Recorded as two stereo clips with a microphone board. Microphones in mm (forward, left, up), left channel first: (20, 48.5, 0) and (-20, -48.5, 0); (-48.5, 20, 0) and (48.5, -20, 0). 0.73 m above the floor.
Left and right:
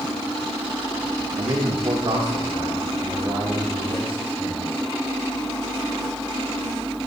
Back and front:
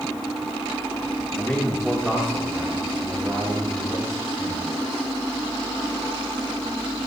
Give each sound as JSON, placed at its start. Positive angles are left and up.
{"t": 1.4, "sound": "a man speaking", "azimuth_deg": -135, "distance_m": 1.6}